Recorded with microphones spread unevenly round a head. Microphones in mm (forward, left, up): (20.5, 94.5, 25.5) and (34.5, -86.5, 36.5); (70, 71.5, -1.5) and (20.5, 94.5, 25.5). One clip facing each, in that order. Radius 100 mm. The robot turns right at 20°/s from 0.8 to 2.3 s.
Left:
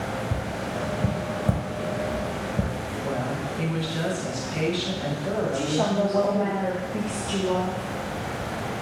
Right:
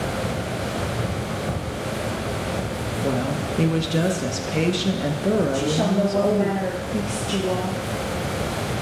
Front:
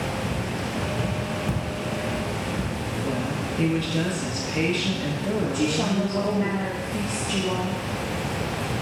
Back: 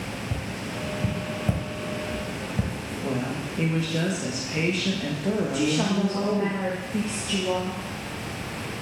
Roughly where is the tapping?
Behind left.